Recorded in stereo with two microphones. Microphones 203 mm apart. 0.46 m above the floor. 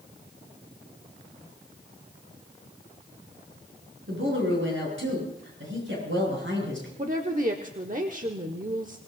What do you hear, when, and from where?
4.1 s a woman speaking: 75° right (ahead or behind), 7.5 m
7.0 s a woman speaking: 40° right (ahead or behind), 0.9 m